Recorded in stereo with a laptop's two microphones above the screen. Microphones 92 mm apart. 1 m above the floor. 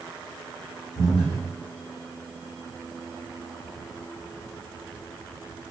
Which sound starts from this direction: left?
Breathing, at 0.9 s.